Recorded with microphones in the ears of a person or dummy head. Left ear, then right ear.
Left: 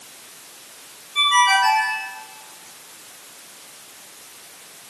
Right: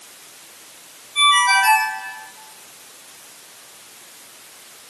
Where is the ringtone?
5° right (ahead or behind), 7 m.